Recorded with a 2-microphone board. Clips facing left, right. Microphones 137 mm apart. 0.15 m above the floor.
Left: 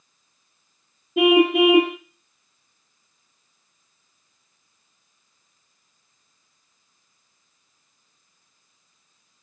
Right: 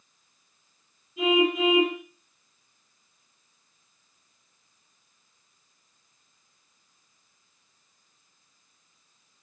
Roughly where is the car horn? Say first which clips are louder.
Left 7 dB; left.